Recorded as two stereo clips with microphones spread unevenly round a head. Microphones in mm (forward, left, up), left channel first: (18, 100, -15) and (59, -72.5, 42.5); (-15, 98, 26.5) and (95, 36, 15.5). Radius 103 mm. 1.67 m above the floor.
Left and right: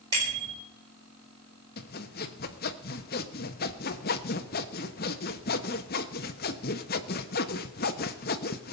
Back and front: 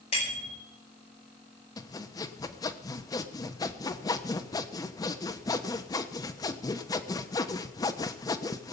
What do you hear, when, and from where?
0.1 s a bicycle bell: 145° right, 6.5 m
1.8 s sawing: 140° left, 1.0 m